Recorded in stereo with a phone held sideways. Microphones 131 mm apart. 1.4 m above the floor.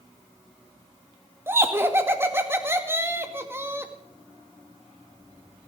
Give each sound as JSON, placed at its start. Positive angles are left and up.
{"t": 1.5, "sound": "laughter", "side_deg": -20, "distance_m": 1.9}